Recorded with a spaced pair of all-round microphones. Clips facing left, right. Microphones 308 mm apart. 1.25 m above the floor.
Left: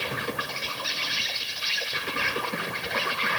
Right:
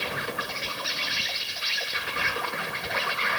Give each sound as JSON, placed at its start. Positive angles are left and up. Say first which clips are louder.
{"t": 0.0, "sound": "an insect", "louder": "left 1 dB", "side_deg": 40, "distance_m": 2.0}